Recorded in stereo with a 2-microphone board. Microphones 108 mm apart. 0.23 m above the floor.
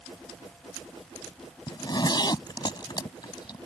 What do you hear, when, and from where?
1.7 s a zipper: 40° left (ahead or behind)